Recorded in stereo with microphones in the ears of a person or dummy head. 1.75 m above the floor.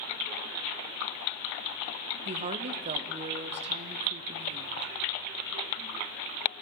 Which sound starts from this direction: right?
A woman speaking, at 2.2 s.